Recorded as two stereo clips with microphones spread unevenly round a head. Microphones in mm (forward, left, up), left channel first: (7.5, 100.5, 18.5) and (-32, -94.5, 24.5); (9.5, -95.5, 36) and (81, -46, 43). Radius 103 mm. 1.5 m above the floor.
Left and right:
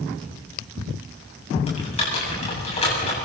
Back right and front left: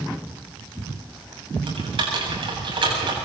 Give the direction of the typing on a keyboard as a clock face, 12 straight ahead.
11 o'clock.